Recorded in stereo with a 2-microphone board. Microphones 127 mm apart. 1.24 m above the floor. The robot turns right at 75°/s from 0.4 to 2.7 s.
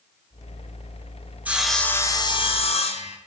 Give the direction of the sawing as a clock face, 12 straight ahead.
1 o'clock.